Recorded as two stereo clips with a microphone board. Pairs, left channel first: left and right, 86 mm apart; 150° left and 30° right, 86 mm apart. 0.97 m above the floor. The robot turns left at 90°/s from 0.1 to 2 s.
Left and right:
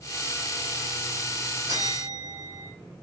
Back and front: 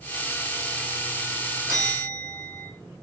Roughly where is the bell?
Right.